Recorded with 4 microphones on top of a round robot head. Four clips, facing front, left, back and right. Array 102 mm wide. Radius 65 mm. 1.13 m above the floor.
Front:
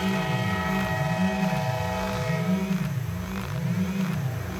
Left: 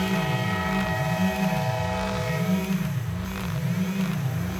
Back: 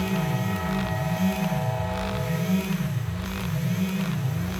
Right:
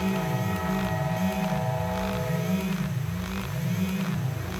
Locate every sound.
Only background noise.